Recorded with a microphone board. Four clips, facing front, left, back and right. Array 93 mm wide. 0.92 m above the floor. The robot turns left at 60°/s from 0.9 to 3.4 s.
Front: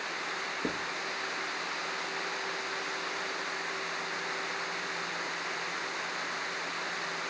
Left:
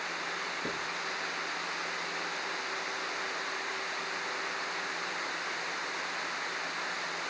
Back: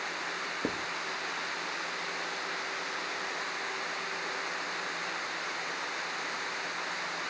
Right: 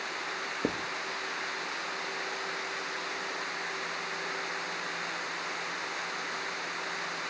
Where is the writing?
100° right, 0.7 m.